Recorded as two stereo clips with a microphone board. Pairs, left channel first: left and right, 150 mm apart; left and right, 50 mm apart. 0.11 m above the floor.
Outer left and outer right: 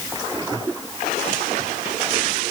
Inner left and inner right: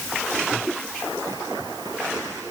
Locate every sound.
Only background noise.